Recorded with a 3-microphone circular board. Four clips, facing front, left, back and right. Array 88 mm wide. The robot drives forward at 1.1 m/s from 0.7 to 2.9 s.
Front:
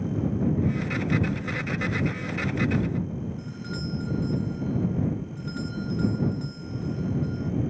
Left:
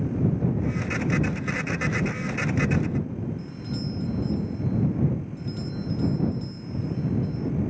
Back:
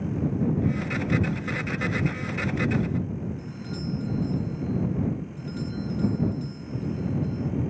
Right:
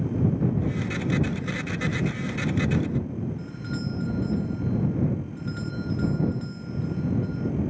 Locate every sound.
3.4 s a doorbell: 45° right